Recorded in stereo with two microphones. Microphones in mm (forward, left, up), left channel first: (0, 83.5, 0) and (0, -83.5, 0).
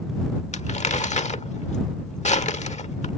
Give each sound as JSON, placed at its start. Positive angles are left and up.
{"t": 0.5, "sound": "crumpling", "side_deg": 45}